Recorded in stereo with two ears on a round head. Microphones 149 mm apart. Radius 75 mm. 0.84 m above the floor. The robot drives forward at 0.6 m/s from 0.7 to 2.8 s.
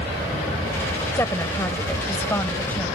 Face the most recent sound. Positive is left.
turn(degrees=10)  # may be behind; listen again after turning